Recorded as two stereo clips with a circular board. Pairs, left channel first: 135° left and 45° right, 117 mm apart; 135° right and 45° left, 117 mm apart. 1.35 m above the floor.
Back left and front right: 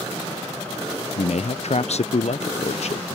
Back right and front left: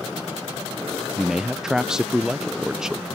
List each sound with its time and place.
1.2 s a man speaking: 130° left